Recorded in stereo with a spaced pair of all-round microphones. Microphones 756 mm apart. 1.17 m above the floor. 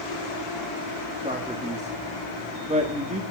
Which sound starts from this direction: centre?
A man speaking, at 1.2 s.